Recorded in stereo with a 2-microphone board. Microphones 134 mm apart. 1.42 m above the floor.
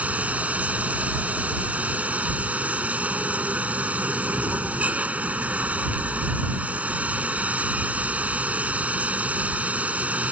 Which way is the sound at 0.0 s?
10° right (ahead or behind).